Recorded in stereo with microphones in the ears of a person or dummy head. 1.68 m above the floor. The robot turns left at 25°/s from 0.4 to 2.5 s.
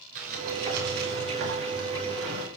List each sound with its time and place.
0.1 s a sliding door: 45° right, 5 m; by 2.5 s 100° right, 5 m